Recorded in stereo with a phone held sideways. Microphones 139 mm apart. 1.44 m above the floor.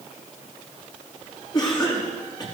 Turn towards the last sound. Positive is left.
turn(degrees=30)  # may be behind; listen again after turning